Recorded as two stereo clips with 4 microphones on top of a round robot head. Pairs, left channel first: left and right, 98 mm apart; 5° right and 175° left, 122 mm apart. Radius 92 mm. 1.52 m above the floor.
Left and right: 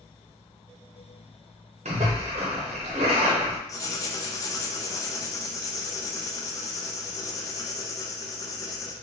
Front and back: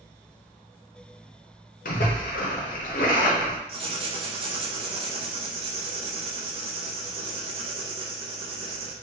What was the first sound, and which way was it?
A splash, 40° right.